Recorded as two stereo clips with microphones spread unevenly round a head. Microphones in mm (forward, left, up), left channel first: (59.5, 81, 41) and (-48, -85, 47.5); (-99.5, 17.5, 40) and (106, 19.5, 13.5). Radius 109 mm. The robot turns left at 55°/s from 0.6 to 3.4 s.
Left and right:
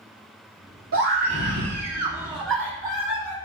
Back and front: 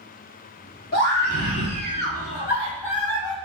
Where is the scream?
135° right, 3.5 m; by 3.4 s 95° left, 3.5 m.